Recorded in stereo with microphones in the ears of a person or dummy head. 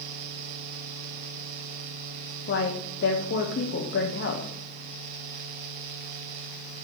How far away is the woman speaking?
About 0.7 m.